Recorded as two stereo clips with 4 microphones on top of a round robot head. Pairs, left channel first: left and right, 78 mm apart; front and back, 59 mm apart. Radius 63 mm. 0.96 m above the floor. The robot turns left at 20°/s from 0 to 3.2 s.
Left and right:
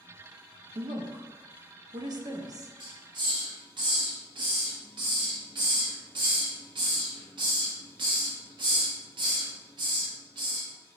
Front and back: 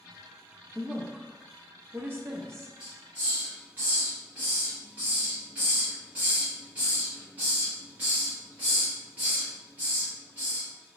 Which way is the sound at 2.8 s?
105° right.